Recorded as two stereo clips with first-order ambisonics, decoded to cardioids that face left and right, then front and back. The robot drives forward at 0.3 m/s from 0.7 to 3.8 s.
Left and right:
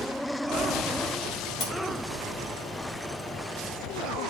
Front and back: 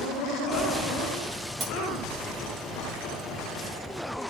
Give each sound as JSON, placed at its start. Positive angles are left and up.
{"t": 1.6, "sound": "cutlery clinking", "azimuth_deg": 130, "distance_m": 2.5}